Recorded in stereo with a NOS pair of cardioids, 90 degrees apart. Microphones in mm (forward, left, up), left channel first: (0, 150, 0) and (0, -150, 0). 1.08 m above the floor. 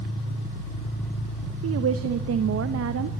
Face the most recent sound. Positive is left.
turn(degrees=-50)